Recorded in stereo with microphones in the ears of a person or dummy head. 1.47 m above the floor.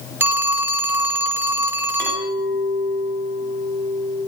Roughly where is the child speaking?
I don't hear a child speaking.